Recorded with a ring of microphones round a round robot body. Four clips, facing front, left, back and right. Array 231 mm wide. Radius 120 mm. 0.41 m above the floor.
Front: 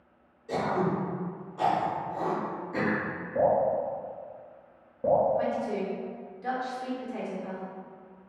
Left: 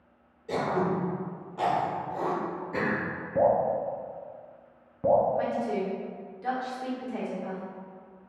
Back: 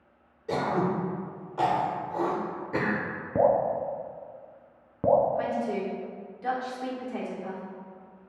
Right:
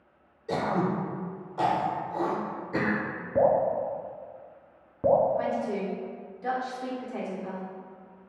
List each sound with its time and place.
0.5 s throat clearing: 170° right, 1.1 m
3.4 s dripping: 165° right, 0.6 m
5.3 s a woman speaking: 150° left, 1.2 m